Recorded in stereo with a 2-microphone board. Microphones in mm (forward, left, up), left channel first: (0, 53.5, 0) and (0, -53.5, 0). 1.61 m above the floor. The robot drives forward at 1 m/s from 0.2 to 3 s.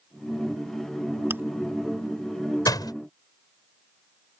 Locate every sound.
1.3 s chewing: 20° right (ahead or behind)
2.7 s a door slam: 35° left (ahead or behind); by 2.9 s 40° left (ahead or behind)